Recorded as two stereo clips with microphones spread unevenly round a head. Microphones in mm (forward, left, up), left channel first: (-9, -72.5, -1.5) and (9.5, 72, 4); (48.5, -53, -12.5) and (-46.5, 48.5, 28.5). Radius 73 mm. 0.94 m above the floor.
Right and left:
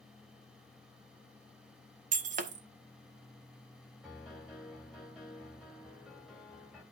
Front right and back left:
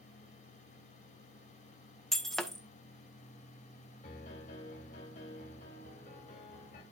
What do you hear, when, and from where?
2.1 s breaking glass: 45° left, 0.7 m
4.0 s a piano: 10° right, 2.5 m